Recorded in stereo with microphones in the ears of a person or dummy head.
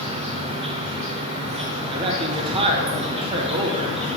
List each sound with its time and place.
0.0 s an insect: 35° right (ahead or behind), 0.7 m
1.9 s a man speaking: 30° right (ahead or behind), 0.8 m